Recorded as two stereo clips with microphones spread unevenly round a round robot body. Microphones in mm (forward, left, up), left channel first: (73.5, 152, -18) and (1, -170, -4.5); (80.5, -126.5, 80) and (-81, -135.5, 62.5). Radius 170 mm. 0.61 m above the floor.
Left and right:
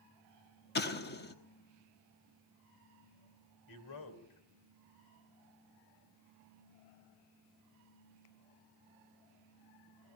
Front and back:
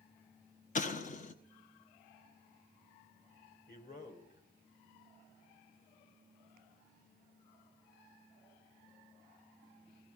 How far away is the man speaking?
About 3 m.